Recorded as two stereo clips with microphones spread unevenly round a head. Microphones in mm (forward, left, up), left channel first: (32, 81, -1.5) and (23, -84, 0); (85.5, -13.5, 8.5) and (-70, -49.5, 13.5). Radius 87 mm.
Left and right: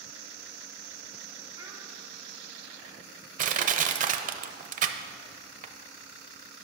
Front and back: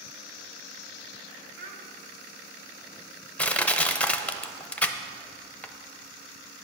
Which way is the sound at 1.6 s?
160° right.